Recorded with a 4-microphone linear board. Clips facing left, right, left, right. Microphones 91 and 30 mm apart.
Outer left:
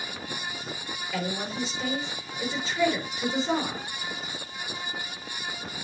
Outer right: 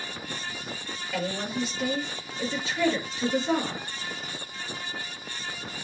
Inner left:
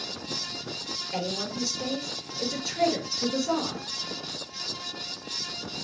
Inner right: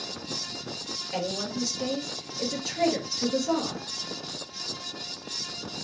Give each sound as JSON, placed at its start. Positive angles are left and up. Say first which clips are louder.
{"t": 1.1, "sound": "a woman speaking", "louder": "outer right 1 dB, inner right 1 dB", "side_deg": -5, "distance_m": 3.5}